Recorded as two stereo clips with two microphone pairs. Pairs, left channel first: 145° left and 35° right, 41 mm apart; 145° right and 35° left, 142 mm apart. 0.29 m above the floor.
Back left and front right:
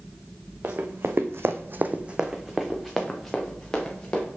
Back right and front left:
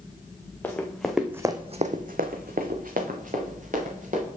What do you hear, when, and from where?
0.6 s running footsteps: 70° right, 1.4 m; by 4.2 s 65° left, 3 m